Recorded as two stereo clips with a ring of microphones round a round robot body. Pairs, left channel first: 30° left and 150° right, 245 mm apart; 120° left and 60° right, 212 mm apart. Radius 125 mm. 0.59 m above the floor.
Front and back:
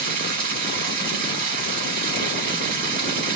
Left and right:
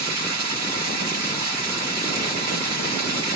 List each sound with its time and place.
0.0 s running water: 95° right, 1.4 m